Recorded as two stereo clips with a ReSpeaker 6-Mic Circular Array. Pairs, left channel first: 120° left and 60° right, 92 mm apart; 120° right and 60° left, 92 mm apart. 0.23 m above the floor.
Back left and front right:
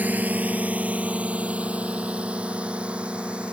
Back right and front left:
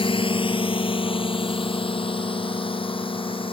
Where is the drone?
130° right; by 3.5 s 140° right.